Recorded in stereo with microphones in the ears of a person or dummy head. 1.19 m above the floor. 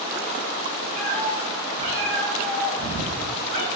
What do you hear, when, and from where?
1.0 s a cat meowing: 35° right (ahead or behind), 1.5 m; by 3.7 s 55° right (ahead or behind), 2.5 m